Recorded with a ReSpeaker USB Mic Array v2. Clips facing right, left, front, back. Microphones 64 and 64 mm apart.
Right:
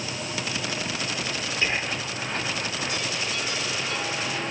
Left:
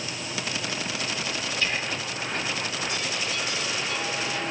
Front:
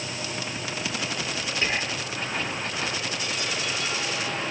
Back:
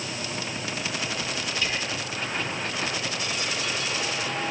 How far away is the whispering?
About 1.0 m.